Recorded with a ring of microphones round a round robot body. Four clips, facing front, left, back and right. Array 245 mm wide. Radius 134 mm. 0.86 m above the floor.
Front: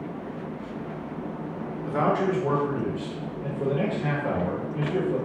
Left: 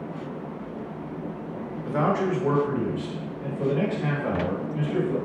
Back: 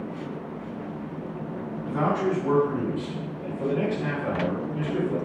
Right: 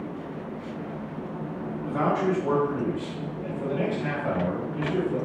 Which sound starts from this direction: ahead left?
A man speaking, at 1.9 s.